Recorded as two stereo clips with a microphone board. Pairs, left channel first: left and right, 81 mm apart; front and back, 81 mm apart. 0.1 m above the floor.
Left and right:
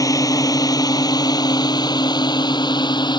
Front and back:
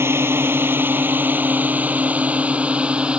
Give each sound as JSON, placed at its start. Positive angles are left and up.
{"t": 0.0, "sound": "a drone", "azimuth_deg": 125}